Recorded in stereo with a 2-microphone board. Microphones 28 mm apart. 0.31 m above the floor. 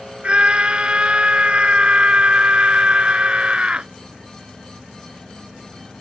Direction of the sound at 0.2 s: 40° right (ahead or behind).